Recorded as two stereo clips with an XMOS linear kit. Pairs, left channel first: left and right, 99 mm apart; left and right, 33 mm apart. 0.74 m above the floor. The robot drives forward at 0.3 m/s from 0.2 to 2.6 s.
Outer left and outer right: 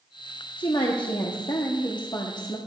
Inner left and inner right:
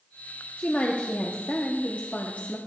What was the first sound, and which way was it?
A woman speaking, 55° left (ahead or behind).